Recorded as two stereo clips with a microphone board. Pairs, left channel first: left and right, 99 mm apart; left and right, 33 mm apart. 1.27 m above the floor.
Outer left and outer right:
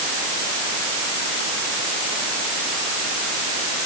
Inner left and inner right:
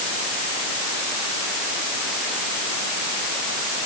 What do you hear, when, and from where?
Only background noise.